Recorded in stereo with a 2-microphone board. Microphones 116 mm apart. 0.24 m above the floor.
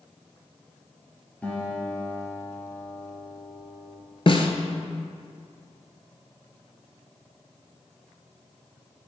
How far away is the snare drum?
About 0.8 m.